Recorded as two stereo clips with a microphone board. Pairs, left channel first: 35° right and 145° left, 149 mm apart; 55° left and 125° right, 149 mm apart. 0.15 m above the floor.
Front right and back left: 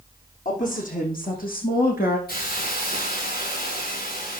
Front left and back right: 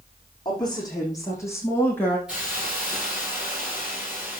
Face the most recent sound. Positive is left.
turn(degrees=-40)